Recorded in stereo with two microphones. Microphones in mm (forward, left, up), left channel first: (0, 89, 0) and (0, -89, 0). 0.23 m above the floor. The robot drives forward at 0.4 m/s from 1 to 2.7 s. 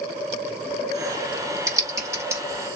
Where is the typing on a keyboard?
20° right (ahead or behind), 1.1 m; by 2.4 s 15° right (ahead or behind), 1.3 m.